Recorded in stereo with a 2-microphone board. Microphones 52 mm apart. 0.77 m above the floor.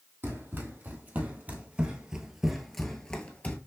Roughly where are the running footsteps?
Right.